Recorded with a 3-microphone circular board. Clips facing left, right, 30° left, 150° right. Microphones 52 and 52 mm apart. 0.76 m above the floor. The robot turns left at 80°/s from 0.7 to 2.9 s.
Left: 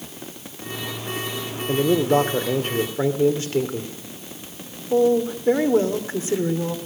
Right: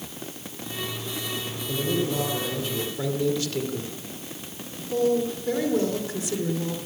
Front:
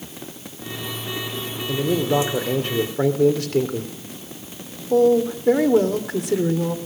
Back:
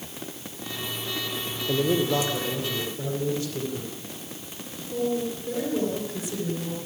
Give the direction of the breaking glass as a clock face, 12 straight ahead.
I don't hear breaking glass.